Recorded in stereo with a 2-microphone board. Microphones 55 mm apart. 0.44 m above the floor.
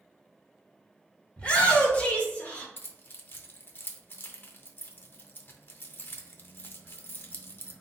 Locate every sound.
1.4 s a shout: 20° left (ahead or behind), 1.7 m; by 2.7 s 25° left (ahead or behind), 1.3 m
2.8 s keys jangling: 40° left (ahead or behind), 0.6 m